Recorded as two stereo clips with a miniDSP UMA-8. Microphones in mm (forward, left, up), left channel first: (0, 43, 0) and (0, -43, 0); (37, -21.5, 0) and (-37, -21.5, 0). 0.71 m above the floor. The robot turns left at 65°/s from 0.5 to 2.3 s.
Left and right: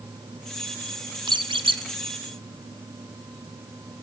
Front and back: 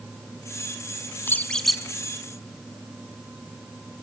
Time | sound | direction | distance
1.3 | a squeak | 60° right | 1.6 m